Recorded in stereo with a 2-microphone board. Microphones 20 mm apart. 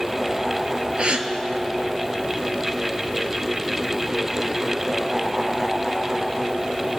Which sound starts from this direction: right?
A gasp, at 1.0 s.